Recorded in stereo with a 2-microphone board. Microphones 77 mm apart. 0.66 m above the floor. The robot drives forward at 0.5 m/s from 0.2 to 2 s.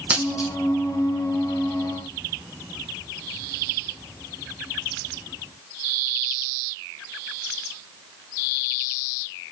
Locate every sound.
0.1 s a dropped coin: 15° right (ahead or behind), 1.5 m